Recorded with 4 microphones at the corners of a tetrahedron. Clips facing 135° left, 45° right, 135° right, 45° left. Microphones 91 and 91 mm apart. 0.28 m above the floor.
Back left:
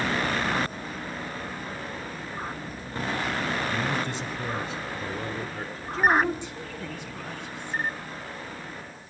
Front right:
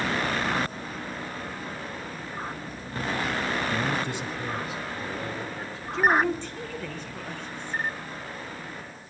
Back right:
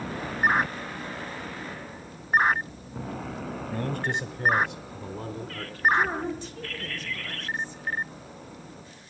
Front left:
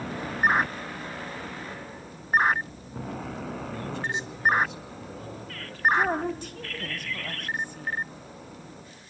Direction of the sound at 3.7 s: 125° right.